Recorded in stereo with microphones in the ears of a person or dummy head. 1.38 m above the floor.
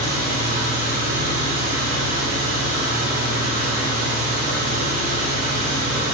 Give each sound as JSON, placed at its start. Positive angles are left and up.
{"t": 0.0, "sound": "an engine running", "side_deg": -40, "distance_m": 0.7}